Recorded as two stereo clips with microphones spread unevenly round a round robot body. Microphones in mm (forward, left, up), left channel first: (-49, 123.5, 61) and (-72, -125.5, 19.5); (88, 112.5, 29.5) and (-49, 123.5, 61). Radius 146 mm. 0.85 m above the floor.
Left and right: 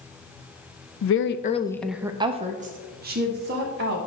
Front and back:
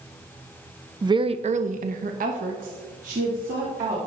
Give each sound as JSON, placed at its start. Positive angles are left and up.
{"t": 1.0, "sound": "a woman speaking", "azimuth_deg": 105, "distance_m": 0.7}